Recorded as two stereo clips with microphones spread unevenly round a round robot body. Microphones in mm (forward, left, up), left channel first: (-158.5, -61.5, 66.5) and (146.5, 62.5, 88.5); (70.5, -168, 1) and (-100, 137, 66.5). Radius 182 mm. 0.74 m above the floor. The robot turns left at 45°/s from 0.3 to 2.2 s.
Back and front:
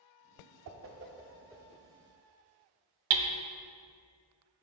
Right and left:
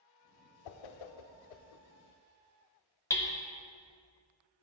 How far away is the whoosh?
About 0.6 m.